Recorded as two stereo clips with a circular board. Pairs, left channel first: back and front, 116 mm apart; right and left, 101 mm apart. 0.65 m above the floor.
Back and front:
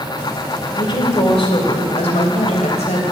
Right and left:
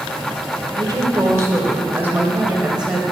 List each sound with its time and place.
0.8 s a woman speaking: 135° left, 2 m; by 3.0 s 175° left, 3 m